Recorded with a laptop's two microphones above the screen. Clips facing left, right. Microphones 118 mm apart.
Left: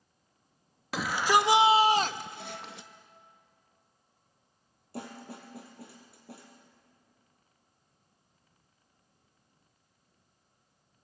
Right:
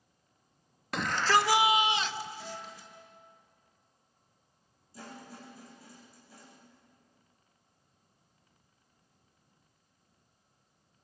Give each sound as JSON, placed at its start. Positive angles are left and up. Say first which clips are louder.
{"t": 0.9, "sound": "a shout", "louder": "left 2 dB", "side_deg": 5, "distance_m": 1.3}
{"t": 2.4, "sound": "a guitar", "louder": "left 1 dB", "side_deg": 30, "distance_m": 9.5}
{"t": 4.9, "sound": "a snare drum", "louder": "left 5 dB", "side_deg": 70, "distance_m": 5.0}